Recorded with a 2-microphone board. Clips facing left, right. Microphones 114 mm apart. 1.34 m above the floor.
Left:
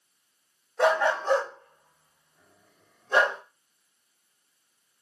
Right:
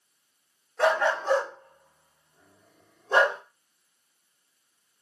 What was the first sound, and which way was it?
A dog barking, 10° left (ahead or behind).